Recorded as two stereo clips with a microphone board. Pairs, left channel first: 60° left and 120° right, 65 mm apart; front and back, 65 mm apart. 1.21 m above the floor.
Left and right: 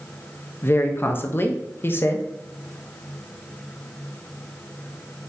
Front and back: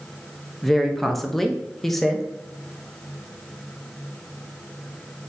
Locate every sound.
0.6 s a woman speaking: 85° left, 0.5 m